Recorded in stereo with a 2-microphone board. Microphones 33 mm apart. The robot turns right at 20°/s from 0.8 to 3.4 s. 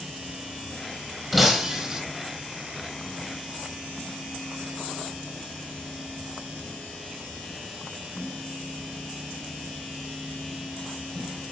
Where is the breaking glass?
Centre (ahead or behind), 4 m; by 2.0 s 15° right (ahead or behind), 4 m.